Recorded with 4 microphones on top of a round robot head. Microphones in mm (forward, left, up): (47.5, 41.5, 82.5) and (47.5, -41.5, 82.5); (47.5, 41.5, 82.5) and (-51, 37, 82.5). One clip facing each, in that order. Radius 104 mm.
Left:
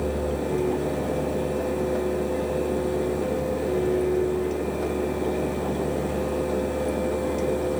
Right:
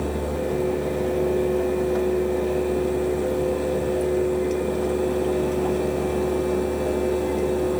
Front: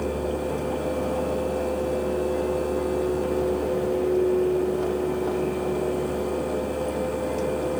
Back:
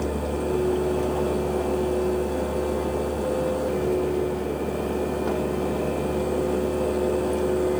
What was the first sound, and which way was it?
Only background noise.